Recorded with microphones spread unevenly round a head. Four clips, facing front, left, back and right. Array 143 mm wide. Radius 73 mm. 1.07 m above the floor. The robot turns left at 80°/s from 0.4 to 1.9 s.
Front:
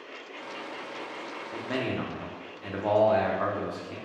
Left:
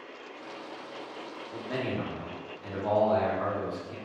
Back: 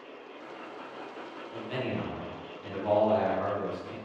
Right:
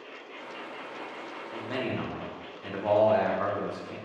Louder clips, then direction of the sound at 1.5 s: Even, front 2 dB; straight ahead.